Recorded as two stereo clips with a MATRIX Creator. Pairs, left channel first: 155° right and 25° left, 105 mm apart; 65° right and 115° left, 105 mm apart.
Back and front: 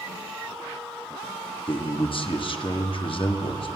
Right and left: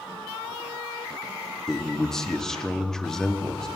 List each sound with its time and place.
1.7 s a man speaking: 150° right, 0.8 m